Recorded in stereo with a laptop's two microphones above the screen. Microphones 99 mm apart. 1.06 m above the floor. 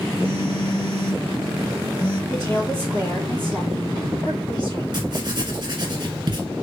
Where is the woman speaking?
35° left (ahead or behind), 2.5 m.